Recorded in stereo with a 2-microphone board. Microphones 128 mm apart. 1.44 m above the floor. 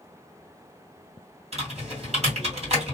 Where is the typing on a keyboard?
50° right (ahead or behind), 2 m.